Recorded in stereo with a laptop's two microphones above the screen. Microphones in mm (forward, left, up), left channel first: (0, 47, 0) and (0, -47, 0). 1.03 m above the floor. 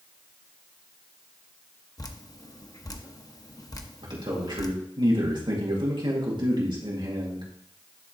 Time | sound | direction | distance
2.0 | dripping | 40° left (ahead or behind) | 0.8 m
4.0 | a man speaking | 55° right (ahead or behind) | 2 m